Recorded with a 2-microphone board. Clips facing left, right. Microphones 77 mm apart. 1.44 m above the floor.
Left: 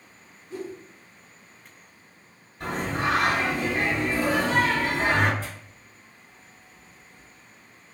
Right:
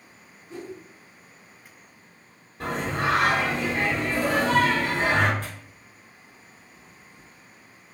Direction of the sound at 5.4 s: 55° right (ahead or behind).